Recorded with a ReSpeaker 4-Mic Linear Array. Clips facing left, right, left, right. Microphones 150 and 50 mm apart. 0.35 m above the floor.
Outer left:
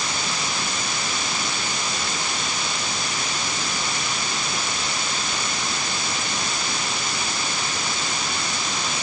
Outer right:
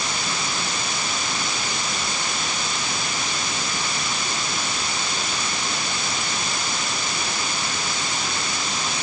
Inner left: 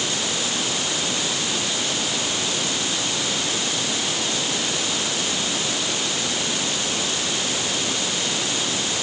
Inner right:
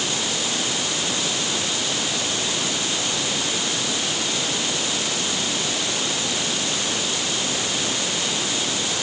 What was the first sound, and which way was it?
Only background noise.